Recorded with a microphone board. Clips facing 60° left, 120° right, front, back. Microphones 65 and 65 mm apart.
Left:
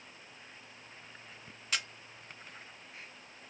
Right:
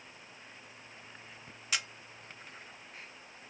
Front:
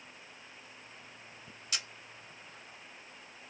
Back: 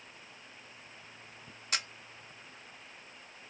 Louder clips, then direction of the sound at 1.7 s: Even, back 4 dB; 155° left.